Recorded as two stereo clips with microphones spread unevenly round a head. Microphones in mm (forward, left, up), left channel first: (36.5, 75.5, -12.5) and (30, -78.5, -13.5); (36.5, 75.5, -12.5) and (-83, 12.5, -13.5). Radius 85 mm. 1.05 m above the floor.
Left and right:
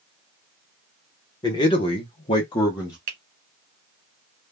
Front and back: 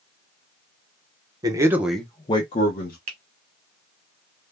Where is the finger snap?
120° right, 0.7 m.